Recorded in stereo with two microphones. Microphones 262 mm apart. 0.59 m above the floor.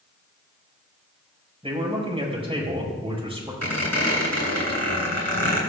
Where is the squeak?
85° left, 3 m.